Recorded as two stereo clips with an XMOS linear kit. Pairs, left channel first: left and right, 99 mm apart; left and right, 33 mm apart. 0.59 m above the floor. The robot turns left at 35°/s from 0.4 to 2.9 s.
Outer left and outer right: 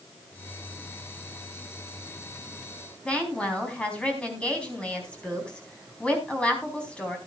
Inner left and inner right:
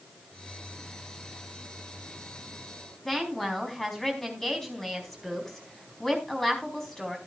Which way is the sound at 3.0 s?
10° left (ahead or behind).